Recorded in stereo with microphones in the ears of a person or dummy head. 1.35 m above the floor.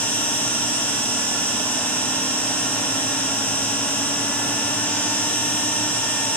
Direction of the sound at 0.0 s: 10° left (ahead or behind).